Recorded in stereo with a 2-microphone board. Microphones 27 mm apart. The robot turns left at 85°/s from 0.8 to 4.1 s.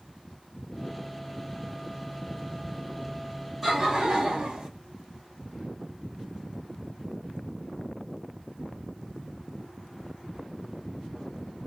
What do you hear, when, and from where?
3.6 s laughter: straight ahead, 1.5 m; by 4.7 s 40° right, 1.5 m